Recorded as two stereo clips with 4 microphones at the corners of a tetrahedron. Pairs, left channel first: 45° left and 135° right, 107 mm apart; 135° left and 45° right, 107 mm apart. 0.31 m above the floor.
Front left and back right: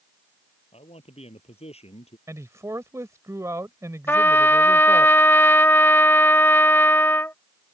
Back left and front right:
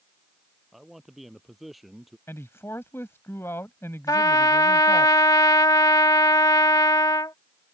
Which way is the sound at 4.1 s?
105° left.